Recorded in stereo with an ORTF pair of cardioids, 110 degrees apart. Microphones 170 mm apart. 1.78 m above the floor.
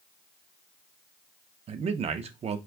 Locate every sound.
1.7 s a man speaking: 40° right, 0.6 m